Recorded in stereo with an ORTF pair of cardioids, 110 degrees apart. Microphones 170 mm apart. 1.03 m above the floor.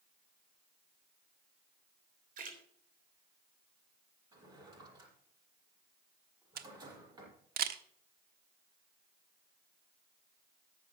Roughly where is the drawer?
Ahead right.